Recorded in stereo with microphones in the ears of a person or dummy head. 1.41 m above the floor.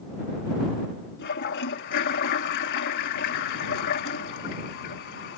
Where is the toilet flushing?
60° left (ahead or behind).